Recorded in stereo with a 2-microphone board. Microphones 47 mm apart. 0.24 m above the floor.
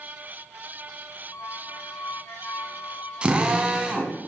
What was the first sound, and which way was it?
A squeak, 70° left (ahead or behind).